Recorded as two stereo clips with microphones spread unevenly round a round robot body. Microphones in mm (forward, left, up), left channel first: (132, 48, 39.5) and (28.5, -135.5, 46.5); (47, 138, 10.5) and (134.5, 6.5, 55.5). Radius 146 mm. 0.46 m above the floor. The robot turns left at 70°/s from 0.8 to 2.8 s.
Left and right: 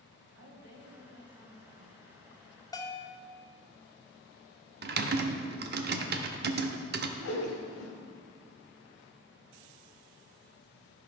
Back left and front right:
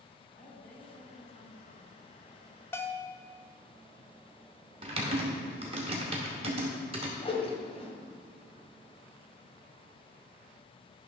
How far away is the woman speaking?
About 3 m.